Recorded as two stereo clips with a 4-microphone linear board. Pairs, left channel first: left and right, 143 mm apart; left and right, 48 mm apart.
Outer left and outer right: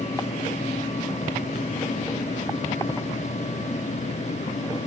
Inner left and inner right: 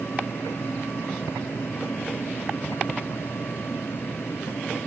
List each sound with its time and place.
Only background noise.